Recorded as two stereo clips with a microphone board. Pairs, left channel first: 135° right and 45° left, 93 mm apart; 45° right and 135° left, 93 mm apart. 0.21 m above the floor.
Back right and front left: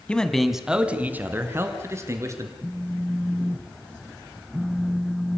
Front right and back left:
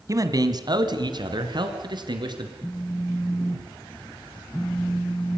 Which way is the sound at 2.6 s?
35° right.